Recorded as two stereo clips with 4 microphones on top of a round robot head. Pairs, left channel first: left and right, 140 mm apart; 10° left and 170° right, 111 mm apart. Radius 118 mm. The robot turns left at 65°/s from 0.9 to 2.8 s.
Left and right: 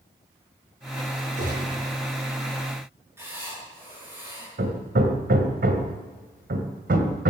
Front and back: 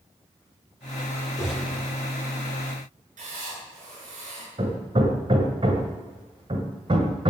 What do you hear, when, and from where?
1.4 s a gunshot: 55° right, 8.5 m; by 1.8 s 85° right, 8.5 m
3.2 s writing: 165° right, 9 m
4.6 s hammering: 115° right, 1.8 m